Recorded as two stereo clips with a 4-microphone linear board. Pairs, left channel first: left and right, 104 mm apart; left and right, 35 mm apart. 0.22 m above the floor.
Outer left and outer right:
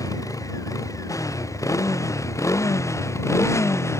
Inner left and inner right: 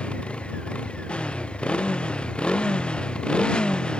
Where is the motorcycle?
35° left (ahead or behind); by 4.0 s 30° left (ahead or behind).